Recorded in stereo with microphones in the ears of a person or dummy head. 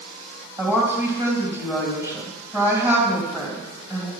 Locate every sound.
0.6 s a woman speaking: 15° right (ahead or behind), 2.5 m